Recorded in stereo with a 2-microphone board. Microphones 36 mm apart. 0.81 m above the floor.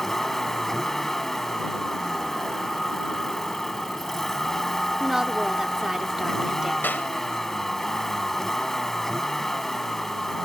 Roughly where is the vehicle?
Centre.